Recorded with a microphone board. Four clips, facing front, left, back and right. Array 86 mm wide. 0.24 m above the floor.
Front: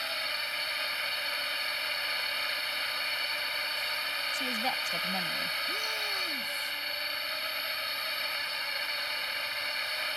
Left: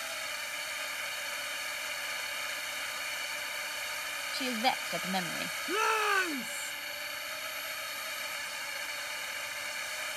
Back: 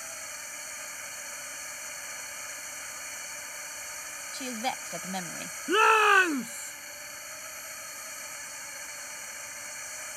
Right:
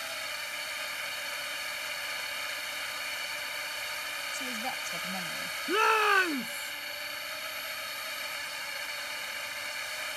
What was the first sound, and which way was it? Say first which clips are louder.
A drone: right 1 dB, front 8 dB; 10° right.